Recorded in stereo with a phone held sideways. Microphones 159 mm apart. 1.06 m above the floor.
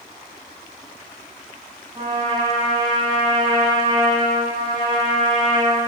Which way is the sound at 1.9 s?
30° right (ahead or behind).